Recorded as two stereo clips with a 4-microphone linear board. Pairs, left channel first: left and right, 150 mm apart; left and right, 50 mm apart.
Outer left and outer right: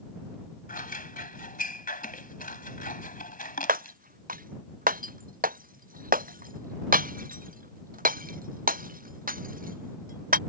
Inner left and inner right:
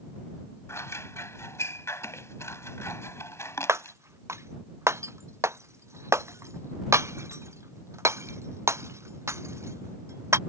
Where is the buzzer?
No buzzer in this recording.